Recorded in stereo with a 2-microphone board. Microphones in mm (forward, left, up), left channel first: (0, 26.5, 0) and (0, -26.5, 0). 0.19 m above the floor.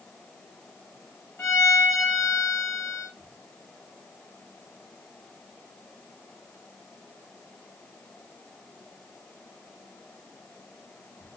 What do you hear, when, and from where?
1.4 s a violin: 55° left (ahead or behind), 5 m